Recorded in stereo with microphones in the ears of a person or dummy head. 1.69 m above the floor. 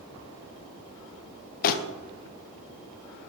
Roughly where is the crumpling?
Left.